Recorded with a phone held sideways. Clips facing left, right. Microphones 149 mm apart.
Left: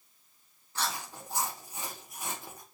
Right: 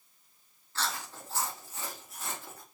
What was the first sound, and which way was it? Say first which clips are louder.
Chewing: left 1 dB; 15° left (ahead or behind).